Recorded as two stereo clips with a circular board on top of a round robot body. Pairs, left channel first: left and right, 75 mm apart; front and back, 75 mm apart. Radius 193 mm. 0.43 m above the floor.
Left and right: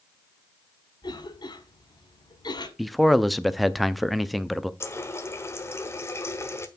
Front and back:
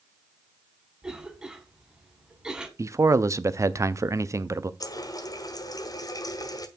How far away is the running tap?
About 1.2 m.